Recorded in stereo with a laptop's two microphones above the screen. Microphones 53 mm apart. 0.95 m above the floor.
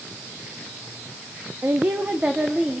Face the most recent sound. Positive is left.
turn(degrees=-15)  # may be behind; listen again after turning